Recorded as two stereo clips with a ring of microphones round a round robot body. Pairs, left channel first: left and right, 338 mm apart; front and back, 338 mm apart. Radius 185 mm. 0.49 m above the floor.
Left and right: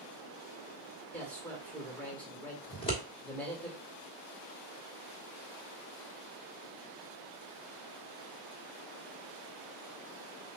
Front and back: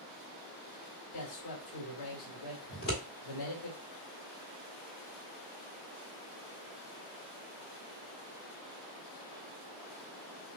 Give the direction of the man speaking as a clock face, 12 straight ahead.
12 o'clock.